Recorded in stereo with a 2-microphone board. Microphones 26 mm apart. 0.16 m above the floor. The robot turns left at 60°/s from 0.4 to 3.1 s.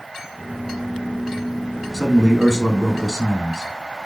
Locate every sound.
1.9 s a man speaking: 15° left (ahead or behind), 1.2 m; by 3.7 s 10° right (ahead or behind), 1.2 m